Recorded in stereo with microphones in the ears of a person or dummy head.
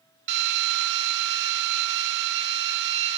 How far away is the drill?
About 1.2 m.